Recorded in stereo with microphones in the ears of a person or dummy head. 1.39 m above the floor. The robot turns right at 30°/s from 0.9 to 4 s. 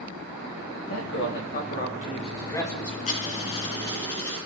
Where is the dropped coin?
35° left (ahead or behind), 2.5 m; by 4.4 s 10° left (ahead or behind), 2.5 m.